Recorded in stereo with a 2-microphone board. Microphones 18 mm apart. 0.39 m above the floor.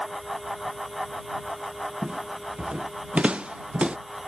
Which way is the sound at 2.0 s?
80° right.